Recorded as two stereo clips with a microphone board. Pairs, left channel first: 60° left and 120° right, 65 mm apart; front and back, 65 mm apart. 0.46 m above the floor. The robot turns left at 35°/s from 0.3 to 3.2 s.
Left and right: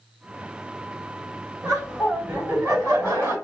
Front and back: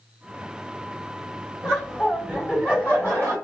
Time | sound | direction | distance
1.6 | laughter | 75° right | 1.9 m